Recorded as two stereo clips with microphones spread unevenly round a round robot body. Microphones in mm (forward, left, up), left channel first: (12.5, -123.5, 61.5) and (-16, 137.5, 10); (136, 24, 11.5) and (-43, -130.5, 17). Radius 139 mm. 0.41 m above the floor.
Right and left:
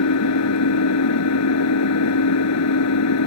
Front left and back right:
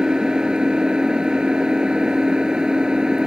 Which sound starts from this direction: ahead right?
An engine running, at 0.0 s.